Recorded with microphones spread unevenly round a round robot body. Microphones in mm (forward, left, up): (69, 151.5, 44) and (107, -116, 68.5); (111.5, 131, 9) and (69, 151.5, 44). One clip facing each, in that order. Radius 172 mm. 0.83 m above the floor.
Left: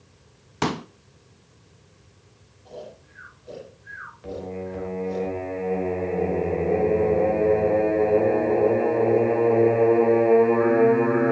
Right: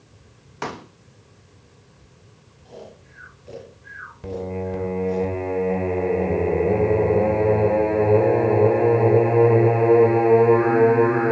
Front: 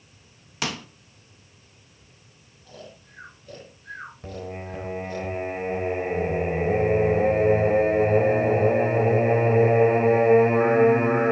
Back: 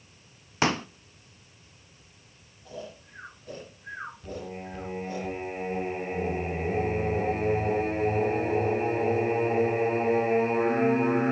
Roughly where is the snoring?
Behind right.